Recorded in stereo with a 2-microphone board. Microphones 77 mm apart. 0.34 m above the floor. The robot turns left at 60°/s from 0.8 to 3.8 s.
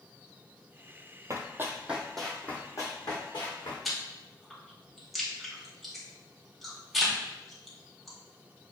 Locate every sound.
1.3 s running footsteps: 45° right (ahead or behind), 0.5 m; by 3.8 s 80° left, 1.8 m
3.9 s chewing: centre (ahead or behind), 1.1 m